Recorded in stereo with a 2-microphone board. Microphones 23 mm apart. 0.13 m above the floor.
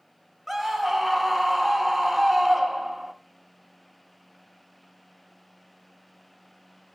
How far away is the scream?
About 1.0 m.